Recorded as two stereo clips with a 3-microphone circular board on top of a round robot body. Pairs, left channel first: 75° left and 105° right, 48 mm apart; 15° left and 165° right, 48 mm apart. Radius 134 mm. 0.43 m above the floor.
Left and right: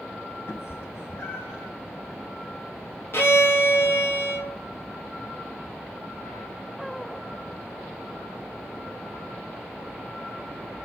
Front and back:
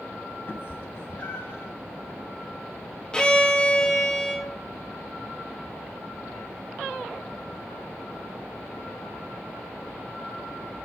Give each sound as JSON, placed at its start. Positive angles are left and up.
{"t": 0.5, "sound": "a cat meowing", "azimuth_deg": 55, "distance_m": 0.7}
{"t": 3.1, "sound": "a violin", "azimuth_deg": 85, "distance_m": 1.7}